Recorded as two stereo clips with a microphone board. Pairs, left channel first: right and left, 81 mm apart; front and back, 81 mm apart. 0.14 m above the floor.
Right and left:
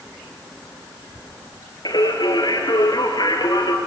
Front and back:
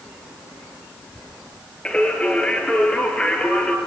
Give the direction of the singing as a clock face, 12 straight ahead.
3 o'clock.